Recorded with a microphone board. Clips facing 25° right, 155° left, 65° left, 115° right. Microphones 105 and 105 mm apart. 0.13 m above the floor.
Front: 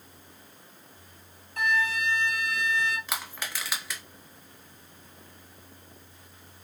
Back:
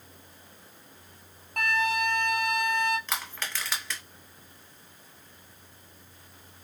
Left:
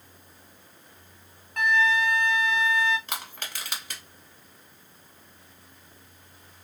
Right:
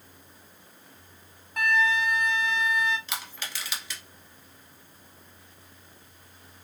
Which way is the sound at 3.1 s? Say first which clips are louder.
Even, left 1 dB; 60° left.